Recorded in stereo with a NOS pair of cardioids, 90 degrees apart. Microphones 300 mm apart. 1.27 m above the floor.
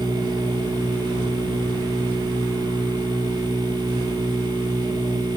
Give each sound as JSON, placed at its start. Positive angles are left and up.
{"t": 0.0, "sound": "a machine running", "azimuth_deg": -15, "distance_m": 0.9}